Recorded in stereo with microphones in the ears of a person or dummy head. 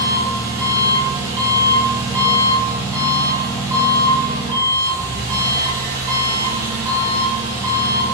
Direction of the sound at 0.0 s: 15° right (ahead or behind).